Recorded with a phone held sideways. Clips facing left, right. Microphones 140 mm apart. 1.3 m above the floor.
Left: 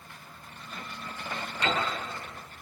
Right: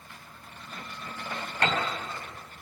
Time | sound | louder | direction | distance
1.6 | a piano | right 1 dB | 80° right | 5 m